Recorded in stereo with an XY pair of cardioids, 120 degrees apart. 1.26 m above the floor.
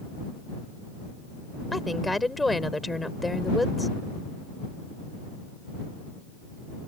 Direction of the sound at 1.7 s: 10° left.